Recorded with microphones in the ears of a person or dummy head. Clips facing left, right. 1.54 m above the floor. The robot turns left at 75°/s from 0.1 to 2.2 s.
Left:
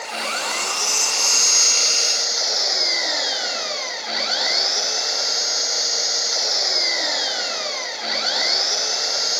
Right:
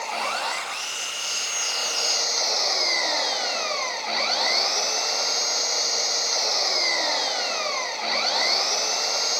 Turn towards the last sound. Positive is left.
turn(degrees=10)